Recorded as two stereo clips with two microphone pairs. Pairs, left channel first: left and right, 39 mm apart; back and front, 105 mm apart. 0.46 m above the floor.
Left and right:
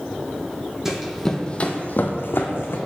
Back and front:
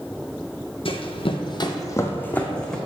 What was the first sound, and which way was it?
Running footsteps, 165° right.